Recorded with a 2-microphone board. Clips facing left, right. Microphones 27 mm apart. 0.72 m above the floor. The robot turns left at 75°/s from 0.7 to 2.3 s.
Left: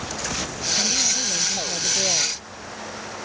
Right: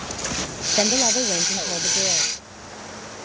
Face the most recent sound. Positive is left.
turn(degrees=160)